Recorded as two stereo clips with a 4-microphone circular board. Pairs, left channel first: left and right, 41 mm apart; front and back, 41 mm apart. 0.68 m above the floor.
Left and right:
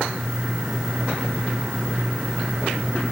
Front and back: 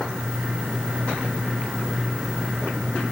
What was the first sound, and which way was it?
Only background noise.